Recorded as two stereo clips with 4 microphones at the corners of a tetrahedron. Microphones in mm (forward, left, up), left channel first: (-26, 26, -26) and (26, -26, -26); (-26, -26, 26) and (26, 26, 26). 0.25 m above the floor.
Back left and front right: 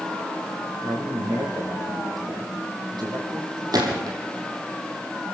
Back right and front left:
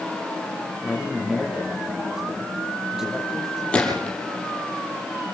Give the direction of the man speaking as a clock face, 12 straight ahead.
1 o'clock.